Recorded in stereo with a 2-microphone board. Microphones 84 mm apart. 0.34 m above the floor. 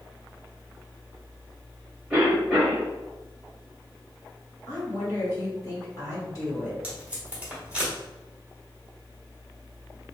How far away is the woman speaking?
About 1.7 m.